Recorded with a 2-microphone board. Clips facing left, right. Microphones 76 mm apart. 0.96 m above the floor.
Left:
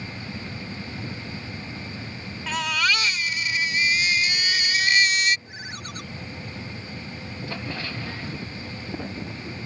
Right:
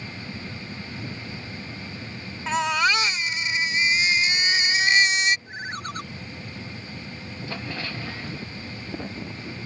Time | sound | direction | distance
2.5 | a baby crying | 25° right (ahead or behind) | ?
5.5 | a ringtone | 35° right (ahead or behind) | ?